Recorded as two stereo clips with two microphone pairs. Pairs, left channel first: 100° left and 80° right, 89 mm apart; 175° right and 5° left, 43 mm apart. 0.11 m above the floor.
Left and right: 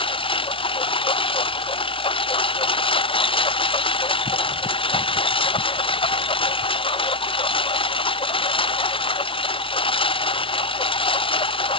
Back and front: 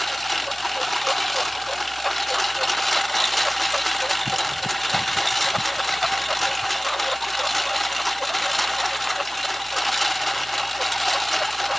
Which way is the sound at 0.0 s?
100° left.